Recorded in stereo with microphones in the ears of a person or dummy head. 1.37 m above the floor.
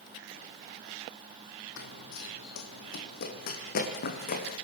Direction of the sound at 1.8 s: 60° left (ahead or behind).